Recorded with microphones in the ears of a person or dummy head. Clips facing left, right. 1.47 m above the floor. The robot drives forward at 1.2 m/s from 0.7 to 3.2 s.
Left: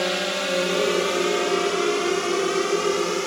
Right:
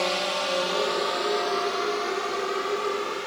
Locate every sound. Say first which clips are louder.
0.0 s a drone: left 2 dB; 20° left (ahead or behind); by 3.3 s 55° left (ahead or behind)